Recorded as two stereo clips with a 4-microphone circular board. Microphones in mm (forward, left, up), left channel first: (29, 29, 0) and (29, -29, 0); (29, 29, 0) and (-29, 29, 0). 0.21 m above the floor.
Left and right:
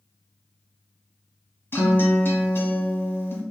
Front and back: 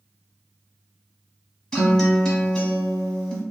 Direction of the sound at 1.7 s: 80° left.